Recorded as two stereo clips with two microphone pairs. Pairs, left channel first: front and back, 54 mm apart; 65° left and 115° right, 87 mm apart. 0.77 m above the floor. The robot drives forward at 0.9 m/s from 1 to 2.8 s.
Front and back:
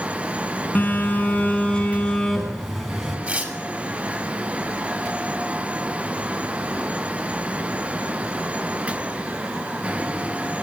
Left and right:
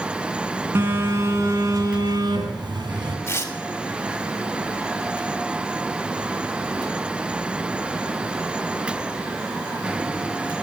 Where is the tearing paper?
125° left, 2.5 m.